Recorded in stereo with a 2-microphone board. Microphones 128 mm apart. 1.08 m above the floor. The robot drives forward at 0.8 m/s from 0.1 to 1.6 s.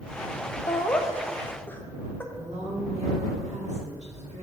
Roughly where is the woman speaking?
Right.